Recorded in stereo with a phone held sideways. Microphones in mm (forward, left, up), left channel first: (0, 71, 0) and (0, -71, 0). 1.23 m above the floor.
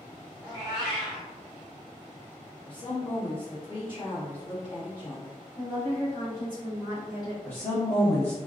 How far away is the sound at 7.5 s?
About 1.2 m.